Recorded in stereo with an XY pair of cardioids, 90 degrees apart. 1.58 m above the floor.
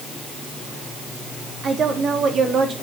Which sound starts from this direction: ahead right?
A woman speaking, at 1.6 s.